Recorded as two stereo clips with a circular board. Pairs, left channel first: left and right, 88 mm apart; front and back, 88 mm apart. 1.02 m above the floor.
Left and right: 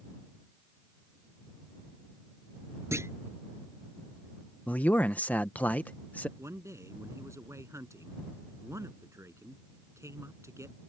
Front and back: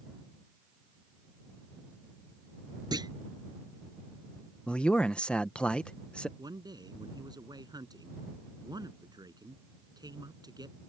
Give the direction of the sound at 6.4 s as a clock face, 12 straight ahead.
5 o'clock.